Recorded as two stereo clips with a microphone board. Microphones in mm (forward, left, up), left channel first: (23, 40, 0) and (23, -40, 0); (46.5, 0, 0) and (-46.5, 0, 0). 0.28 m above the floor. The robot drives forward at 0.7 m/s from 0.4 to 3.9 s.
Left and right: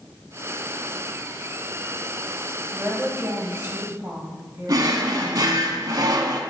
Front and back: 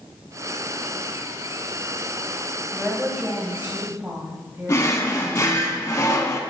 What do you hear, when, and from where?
2.7 s a woman speaking: 90° right, 1.7 m; by 5.7 s 135° right, 1.8 m
4.7 s a drawer: 50° right, 0.6 m